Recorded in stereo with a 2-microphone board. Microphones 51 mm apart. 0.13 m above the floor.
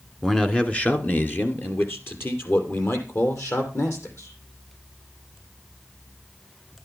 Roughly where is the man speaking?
Centre.